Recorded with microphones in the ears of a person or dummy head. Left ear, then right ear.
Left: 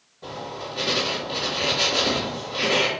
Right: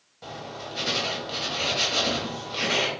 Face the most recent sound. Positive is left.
turn(degrees=-55)  # may be behind; listen again after turning